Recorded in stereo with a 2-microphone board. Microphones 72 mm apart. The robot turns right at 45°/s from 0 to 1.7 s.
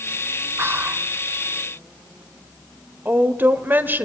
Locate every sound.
0.6 s whispering: 35° right (ahead or behind), 1.2 m; by 1.1 s 20° right (ahead or behind), 1.2 m
3.0 s a woman speaking: 30° right (ahead or behind), 1.4 m